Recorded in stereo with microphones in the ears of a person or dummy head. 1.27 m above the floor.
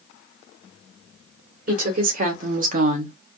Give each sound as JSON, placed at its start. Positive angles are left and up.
{"t": 1.7, "sound": "a woman speaking", "side_deg": -50, "distance_m": 1.7}